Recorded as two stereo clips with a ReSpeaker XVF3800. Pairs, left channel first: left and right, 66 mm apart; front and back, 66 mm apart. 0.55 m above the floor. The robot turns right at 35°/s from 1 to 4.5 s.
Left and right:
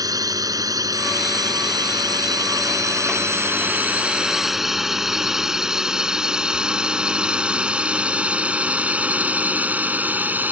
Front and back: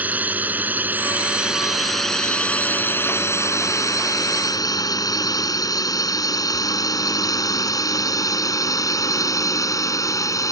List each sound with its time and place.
0.0 s a drone: 115° right; by 10.5 s 30° right